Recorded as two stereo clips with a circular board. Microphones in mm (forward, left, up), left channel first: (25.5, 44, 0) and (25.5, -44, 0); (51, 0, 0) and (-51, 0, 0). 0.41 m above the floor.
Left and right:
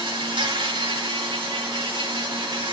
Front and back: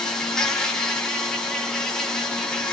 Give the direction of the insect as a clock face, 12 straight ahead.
3 o'clock.